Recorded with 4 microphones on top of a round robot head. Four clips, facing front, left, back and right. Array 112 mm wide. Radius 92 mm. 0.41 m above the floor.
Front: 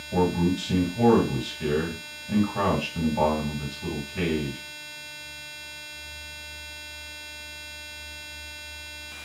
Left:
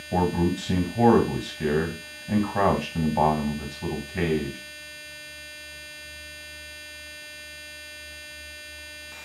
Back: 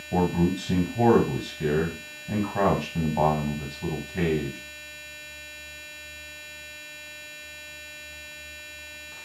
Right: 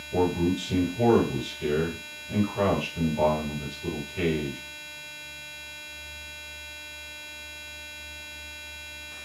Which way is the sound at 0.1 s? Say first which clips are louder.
Left 1 dB, even; 115° left.